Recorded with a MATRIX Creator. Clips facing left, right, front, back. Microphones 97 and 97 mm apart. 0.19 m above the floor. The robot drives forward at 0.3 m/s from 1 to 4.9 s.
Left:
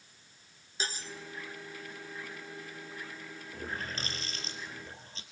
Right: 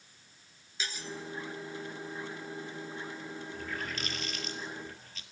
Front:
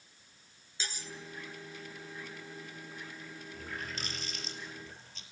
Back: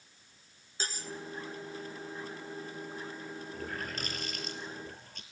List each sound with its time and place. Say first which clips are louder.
0.8 s cutlery clinking: left 1 dB, back 4 dB; 140° left, 1.7 m
3.5 s a running tap: left 2 dB, back 2 dB; 140° left, 3 m; by 5.2 s 145° left, 3.5 m